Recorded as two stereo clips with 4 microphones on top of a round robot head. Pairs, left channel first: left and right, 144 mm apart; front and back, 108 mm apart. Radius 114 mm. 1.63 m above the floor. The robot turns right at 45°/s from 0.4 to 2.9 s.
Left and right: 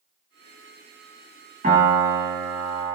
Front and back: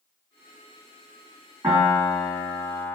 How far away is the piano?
About 1.9 m.